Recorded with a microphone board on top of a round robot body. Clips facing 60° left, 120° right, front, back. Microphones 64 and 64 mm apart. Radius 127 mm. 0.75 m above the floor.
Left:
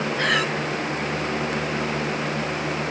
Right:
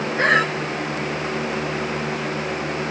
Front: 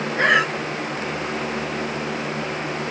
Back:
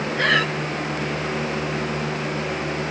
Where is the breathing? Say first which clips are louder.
Right 6 dB, front 3 dB; 70° right, 2 m.